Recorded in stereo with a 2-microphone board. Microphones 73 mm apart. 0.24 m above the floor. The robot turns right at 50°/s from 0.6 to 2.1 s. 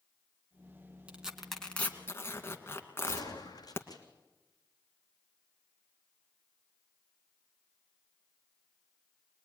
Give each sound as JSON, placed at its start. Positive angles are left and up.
{"t": 1.1, "sound": "tearing paper", "side_deg": -15, "distance_m": 2.5}
{"t": 3.0, "sound": "a gunshot", "side_deg": 55, "distance_m": 3.0}